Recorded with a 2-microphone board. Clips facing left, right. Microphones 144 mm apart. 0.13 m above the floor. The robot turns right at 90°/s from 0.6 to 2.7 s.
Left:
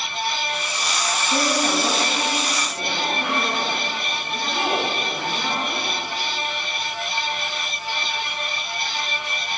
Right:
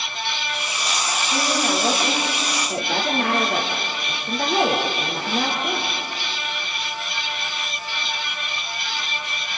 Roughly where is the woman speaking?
Behind left.